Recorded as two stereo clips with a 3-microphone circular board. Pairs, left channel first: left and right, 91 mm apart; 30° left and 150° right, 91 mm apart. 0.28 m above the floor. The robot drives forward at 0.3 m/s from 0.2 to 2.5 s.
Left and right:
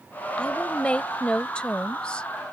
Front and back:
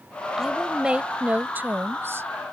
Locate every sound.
0.4 s a woman speaking: 135° left; by 2.3 s 165° left